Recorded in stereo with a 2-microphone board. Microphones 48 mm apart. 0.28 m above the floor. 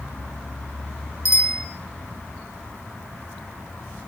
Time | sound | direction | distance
1.2 | a bicycle bell | 75° left (ahead or behind) | 4 m